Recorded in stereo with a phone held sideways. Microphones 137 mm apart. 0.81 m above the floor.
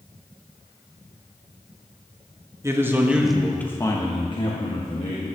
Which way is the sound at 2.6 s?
20° right (ahead or behind).